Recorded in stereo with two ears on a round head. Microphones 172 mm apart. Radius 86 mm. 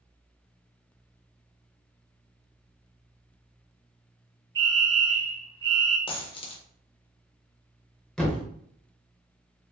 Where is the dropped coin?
30° left (ahead or behind), 0.6 m.